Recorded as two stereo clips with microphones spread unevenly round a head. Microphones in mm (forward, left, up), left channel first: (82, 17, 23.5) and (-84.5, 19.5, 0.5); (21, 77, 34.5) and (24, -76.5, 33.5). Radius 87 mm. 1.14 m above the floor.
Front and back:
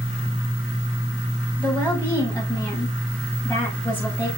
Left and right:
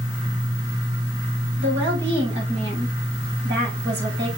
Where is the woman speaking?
80° right, 6 m.